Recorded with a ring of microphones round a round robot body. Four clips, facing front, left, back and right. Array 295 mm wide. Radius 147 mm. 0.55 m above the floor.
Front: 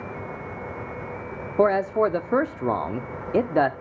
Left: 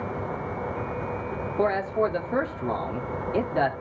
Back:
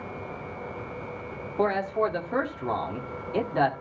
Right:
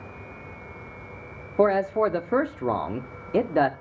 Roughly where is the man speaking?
Ahead right.